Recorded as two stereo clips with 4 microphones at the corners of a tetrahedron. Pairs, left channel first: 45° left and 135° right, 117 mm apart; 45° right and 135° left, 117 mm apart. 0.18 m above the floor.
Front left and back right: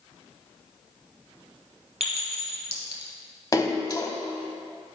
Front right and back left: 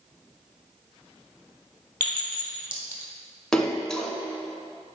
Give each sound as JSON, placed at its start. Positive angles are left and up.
{"t": 2.0, "sound": "a clink", "azimuth_deg": -120, "distance_m": 2.0}
{"t": 3.5, "sound": "a splash", "azimuth_deg": 35, "distance_m": 0.7}